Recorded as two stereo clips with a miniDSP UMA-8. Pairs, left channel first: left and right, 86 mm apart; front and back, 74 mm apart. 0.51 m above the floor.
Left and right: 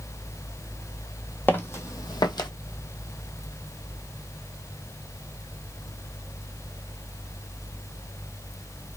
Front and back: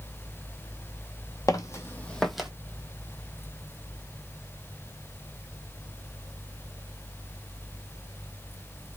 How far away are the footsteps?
About 1.0 m.